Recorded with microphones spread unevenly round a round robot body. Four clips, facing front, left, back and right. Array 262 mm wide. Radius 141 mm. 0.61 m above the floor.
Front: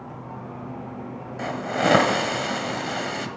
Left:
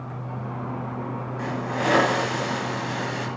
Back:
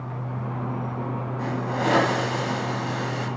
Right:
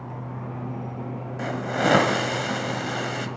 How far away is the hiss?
About 1.5 m.